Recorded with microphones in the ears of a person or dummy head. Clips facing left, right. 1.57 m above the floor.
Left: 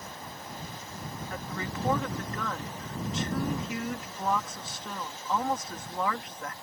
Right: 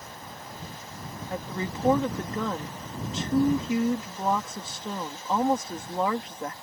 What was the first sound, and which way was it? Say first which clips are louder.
A woman speaking: right 6 dB; 20° right (ahead or behind).